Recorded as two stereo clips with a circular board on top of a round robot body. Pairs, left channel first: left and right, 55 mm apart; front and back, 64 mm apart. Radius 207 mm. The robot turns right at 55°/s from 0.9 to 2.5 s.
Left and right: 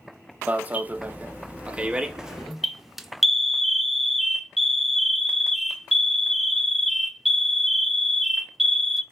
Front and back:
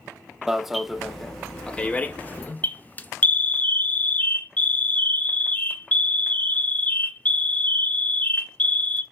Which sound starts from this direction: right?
An alarm, at 0.5 s.